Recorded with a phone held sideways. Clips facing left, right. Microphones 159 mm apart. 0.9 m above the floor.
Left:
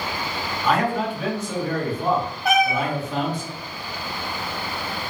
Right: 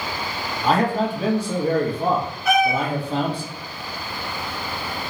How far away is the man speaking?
About 0.8 m.